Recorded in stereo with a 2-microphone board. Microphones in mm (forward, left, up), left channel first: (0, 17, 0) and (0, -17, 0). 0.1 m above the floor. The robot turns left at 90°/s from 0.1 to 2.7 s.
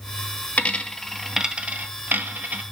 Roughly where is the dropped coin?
Left.